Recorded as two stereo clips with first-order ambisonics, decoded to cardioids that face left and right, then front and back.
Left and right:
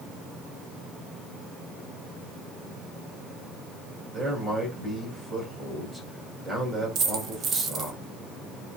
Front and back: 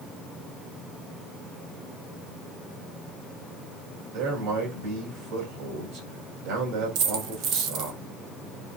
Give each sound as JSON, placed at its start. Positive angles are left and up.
{"t": 4.1, "sound": "a man speaking", "azimuth_deg": -170, "distance_m": 4.5}
{"t": 7.0, "sound": "a dropped coin", "azimuth_deg": -150, "distance_m": 1.3}